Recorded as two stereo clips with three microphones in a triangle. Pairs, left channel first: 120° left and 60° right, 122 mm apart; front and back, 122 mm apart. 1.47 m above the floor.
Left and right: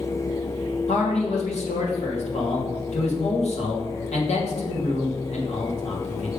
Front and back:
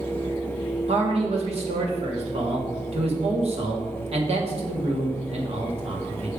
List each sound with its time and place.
0.9 s a man speaking: 145° left, 1.6 m